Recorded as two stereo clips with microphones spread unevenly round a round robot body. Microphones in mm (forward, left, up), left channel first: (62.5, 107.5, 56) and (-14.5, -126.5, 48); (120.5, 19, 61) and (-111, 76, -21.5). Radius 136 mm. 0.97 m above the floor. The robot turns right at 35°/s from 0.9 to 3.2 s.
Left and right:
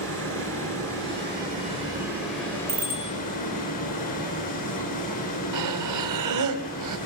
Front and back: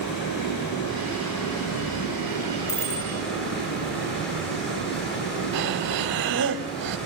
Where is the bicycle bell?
50° right, 6 m; by 3.1 s 35° right, 6 m.